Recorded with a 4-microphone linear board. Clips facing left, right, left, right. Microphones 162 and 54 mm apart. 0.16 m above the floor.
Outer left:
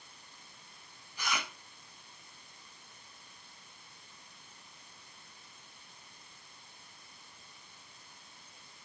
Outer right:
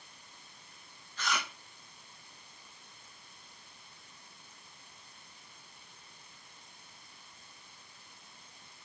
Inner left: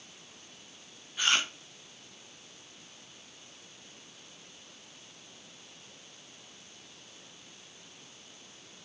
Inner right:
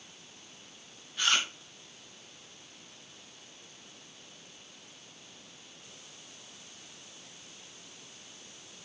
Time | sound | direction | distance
1.2 | chewing | 15° left (ahead or behind) | 3 m